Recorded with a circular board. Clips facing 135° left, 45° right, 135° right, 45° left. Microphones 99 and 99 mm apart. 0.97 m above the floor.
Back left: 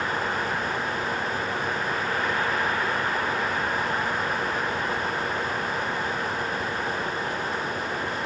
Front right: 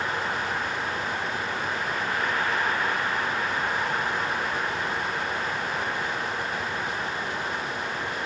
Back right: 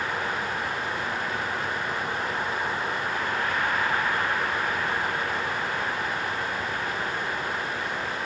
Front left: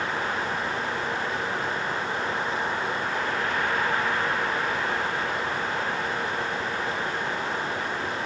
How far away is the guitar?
No guitar in this recording.